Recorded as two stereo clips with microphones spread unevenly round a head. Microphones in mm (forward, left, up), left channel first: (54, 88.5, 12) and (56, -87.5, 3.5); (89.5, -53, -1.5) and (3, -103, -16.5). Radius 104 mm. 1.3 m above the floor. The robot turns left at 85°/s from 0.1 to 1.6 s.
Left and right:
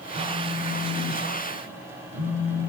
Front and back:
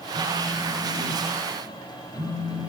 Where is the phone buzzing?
25° left, 6.5 m; by 2.7 s 100° right, 6.5 m.